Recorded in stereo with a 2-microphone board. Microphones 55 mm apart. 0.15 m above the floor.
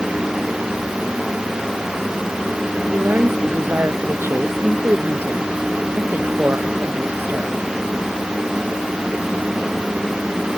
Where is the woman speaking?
45° right (ahead or behind); by 7.7 s 35° right (ahead or behind).